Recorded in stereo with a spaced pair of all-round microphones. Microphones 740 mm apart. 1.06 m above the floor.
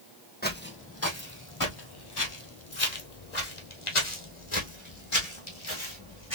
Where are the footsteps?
10° left (ahead or behind), 1.6 m; by 6.4 s 35° left (ahead or behind), 2.5 m.